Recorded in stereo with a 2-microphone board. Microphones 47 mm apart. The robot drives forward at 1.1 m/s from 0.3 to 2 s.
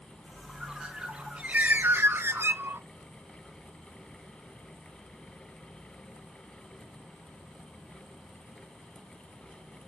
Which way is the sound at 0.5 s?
15° right (ahead or behind).